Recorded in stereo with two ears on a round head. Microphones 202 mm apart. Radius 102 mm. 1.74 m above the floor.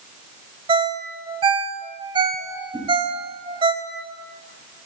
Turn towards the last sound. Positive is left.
turn(degrees=-20)  # may be behind; listen again after turning